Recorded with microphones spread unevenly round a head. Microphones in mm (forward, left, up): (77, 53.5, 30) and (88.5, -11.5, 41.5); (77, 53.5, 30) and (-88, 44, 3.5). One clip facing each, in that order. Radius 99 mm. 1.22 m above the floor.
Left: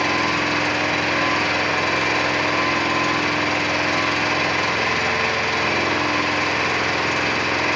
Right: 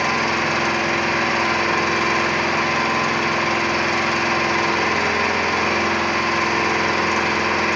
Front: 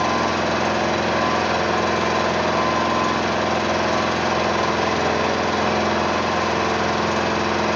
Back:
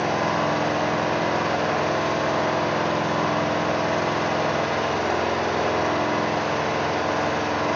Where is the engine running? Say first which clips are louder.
Right 1 dB, front 2 dB; straight ahead, 3.5 m.